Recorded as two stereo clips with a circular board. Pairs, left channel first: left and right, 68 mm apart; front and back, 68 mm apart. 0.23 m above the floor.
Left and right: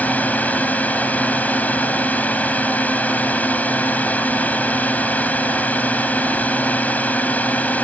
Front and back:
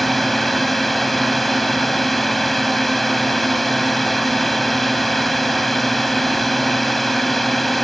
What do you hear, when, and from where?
0.0 s a drone: 85° left